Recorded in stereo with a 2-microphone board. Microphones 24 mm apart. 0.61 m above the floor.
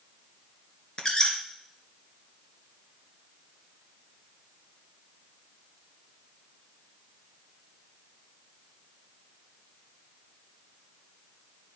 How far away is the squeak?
About 1.7 m.